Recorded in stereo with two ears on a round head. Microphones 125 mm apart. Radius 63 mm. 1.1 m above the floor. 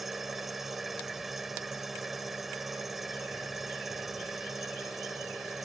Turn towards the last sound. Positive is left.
turn(degrees=0)  # may be behind; listen again after turning